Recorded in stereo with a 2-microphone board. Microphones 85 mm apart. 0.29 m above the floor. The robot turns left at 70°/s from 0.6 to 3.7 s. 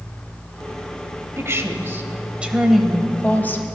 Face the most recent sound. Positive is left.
turn(degrees=115)